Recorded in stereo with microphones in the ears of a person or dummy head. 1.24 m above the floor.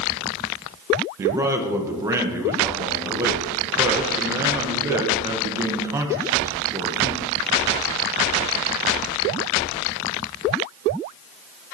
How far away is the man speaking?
About 0.8 m.